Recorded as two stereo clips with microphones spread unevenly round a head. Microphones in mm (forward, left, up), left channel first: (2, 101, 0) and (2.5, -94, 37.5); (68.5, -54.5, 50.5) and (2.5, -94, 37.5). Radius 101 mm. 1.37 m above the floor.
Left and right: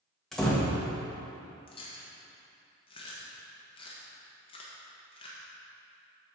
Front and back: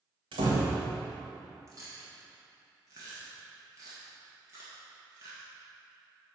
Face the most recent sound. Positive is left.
turn(degrees=155)